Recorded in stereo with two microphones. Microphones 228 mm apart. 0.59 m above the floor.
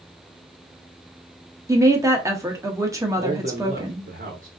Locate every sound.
1.7 s a woman speaking: 15° right (ahead or behind), 0.8 m
3.2 s a man speaking: 40° right (ahead or behind), 0.7 m